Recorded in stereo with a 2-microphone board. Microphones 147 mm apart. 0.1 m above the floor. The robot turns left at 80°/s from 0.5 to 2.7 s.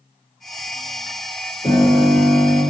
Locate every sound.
1.6 s a piano: 65° left, 1.9 m; by 2.6 s 15° right, 1.9 m